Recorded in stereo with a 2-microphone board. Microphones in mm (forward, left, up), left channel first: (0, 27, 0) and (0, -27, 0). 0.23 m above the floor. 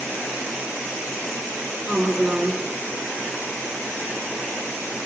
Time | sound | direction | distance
1.9 | a woman speaking | 20° right (ahead or behind) | 3.5 m